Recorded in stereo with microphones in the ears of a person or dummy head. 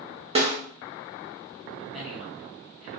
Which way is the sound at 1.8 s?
5° right (ahead or behind).